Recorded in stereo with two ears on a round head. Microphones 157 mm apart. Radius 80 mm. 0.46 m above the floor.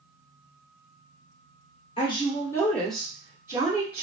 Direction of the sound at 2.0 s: 30° left (ahead or behind).